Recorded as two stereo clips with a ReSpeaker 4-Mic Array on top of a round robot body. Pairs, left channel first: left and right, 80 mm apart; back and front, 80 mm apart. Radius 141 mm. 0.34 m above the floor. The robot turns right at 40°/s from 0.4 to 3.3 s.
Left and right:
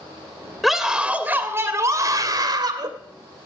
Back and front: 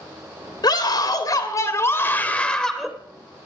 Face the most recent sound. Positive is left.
turn(degrees=-75)